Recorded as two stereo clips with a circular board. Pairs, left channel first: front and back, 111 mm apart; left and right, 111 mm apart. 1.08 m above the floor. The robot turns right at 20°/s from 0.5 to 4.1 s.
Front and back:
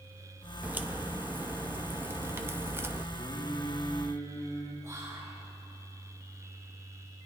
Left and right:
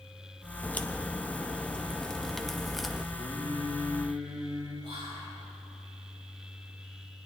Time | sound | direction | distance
0.6 | a crack | 135° left | 0.6 m
3.1 | singing | 50° right | 3.5 m
4.8 | whispering | 115° right | 6.5 m